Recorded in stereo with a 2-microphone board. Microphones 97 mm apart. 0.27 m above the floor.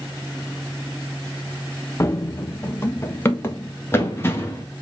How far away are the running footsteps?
About 0.7 m.